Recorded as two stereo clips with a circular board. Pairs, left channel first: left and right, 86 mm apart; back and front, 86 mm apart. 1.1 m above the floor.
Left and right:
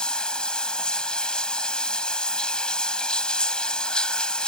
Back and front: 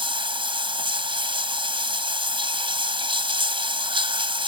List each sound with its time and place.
0.0 s running water: 10° left